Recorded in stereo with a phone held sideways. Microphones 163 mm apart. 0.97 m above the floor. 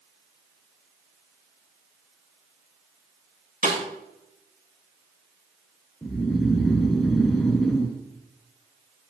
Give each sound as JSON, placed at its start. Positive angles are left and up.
{"t": 3.6, "sound": "a snare drum", "side_deg": -60, "distance_m": 8.0}
{"t": 6.0, "sound": "snoring", "side_deg": 0, "distance_m": 3.0}